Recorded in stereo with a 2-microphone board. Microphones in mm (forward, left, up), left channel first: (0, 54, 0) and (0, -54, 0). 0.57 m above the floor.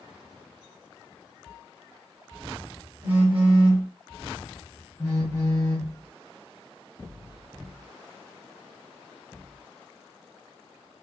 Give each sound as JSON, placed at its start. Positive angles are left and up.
{"t": 3.0, "sound": "a phone buzzing", "side_deg": -25, "distance_m": 1.2}
{"t": 5.0, "sound": "a phone buzzing", "side_deg": 35, "distance_m": 1.4}